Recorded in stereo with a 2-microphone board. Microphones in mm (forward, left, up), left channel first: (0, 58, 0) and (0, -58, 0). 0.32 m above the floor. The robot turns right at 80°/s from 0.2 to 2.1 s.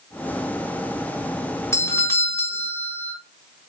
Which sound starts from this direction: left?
A doorbell, at 1.7 s.